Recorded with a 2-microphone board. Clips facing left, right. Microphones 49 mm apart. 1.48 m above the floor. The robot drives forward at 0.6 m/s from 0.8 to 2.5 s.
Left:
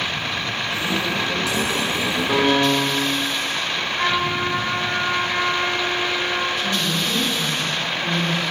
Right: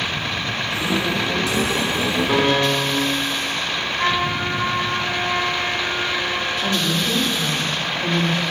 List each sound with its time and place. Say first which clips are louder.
2.3 s a piano: left 2 dB; centre (ahead or behind), 5 m
3.7 s a trumpet: right 1 dB; 45° left (ahead or behind), 8 m
6.6 s a woman speaking: right 1 dB; 75° right (ahead or behind), 3 m